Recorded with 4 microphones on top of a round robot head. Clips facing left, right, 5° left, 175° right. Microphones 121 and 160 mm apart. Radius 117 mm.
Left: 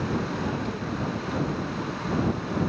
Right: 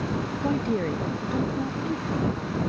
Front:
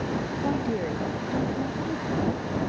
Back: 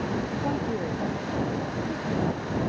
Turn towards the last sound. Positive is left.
turn(degrees=-65)